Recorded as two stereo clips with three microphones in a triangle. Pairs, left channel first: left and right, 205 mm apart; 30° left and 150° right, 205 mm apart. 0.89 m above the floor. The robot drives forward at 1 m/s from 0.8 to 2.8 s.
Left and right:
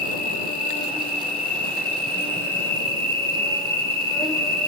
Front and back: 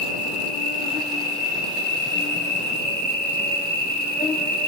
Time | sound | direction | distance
0.0 | an insect | 5° left | 3 m